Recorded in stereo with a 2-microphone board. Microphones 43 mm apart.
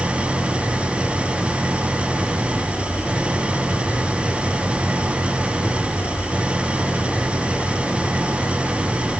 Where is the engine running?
25° right (ahead or behind).